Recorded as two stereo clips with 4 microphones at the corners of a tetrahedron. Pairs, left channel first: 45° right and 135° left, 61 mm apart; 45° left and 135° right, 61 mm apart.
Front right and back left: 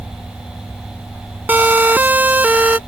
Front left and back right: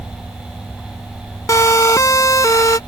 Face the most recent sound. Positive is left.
turn(degrees=70)